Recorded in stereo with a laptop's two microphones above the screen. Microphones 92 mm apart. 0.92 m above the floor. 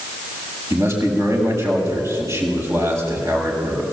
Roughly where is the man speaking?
Right.